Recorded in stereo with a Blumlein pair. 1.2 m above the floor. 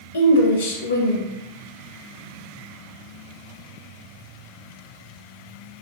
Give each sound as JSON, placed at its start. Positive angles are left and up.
{"t": 0.1, "sound": "a woman speaking", "azimuth_deg": 65, "distance_m": 0.5}